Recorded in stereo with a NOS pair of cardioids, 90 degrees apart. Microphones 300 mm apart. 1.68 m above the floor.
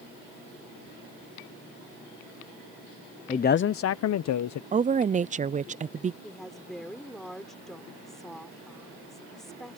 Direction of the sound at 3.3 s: 20° left.